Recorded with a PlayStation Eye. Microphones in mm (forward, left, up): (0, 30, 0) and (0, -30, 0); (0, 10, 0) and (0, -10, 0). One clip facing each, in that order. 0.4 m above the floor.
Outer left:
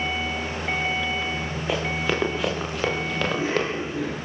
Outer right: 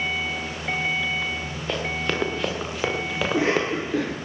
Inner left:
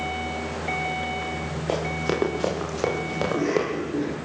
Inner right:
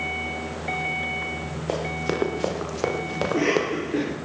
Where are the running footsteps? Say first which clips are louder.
Outer left 1 dB, inner left 1 dB; 10° left (ahead or behind), 7 m; by 3.7 s 10° right (ahead or behind), 5 m.